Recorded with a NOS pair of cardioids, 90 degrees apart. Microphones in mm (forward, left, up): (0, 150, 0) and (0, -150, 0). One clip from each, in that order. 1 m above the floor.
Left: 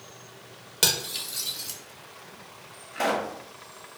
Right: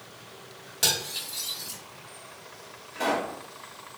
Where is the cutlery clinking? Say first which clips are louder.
Left 1 dB; 45° left, 0.9 m.